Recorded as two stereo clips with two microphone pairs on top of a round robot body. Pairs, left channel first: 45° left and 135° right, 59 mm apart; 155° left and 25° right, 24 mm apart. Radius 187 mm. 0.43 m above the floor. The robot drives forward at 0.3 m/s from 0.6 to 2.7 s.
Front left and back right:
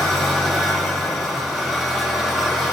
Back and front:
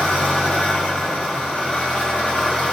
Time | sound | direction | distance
0.0 | an engine running | 135° left | 1.7 m